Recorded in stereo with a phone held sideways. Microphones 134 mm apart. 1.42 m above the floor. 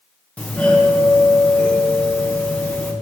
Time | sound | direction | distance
0.4 | a doorbell | 10° left (ahead or behind) | 1.3 m